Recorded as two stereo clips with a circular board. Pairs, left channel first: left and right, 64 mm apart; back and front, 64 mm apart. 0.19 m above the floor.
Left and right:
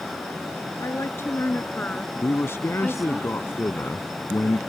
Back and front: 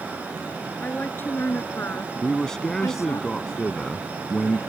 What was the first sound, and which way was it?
A woman speaking, 120° left.